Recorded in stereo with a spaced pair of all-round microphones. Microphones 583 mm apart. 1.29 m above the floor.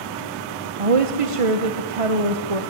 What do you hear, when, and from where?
0.8 s a woman speaking: 65° right (ahead or behind), 1.2 m